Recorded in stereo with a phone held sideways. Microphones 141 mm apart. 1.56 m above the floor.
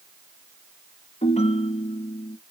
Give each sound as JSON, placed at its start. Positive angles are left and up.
{"t": 1.2, "sound": "a ringtone", "side_deg": 50, "distance_m": 1.0}